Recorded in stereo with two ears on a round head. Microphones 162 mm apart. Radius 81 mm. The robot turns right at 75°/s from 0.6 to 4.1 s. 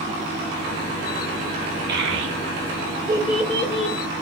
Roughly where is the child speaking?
Right.